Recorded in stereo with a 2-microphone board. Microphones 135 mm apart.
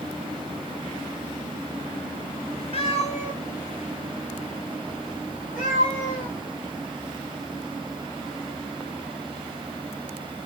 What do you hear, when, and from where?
2.7 s a cat meowing: 45° left (ahead or behind), 0.5 m; by 6.3 s 80° left, 2.5 m